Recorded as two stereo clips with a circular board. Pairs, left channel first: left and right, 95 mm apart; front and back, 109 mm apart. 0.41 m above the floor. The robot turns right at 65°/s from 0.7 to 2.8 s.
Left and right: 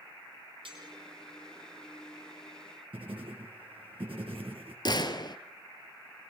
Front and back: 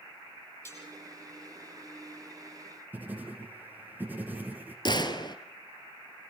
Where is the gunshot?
45° left, 1.7 m.